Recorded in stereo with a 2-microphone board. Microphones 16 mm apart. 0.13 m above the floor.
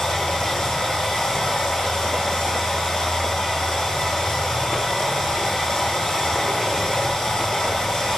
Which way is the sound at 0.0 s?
75° left (ahead or behind).